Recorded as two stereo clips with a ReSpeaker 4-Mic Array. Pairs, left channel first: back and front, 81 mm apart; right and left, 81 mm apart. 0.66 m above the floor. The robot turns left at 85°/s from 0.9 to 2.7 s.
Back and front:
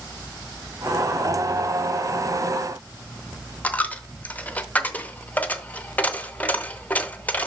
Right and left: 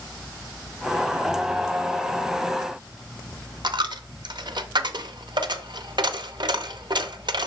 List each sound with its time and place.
3.6 s a dropped coin: 110° left, 0.6 m